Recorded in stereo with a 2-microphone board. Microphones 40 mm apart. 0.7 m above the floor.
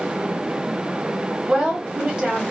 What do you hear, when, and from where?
1.5 s a woman speaking: 20° right (ahead or behind), 1.1 m